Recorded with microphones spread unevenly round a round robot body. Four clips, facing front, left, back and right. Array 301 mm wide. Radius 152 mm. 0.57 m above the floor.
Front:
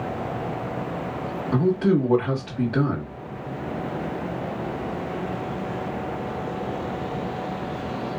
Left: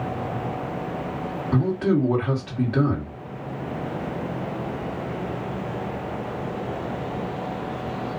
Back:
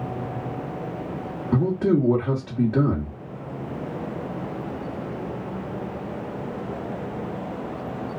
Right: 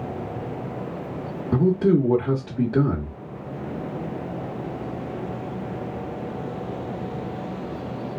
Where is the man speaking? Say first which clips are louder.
Right 3 dB, even; 110° right, 1.2 m.